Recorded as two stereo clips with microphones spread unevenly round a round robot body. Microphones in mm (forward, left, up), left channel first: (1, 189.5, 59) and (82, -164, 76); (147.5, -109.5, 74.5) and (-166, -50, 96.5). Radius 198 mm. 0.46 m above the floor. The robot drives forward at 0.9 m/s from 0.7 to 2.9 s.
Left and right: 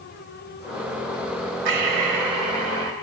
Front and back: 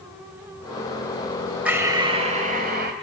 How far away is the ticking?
I don't hear ticking.